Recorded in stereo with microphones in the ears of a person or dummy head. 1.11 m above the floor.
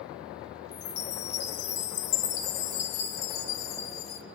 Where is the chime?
35° left (ahead or behind), 1.4 m.